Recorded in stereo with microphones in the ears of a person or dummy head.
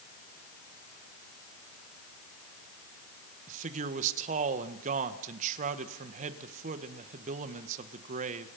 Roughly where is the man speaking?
Right.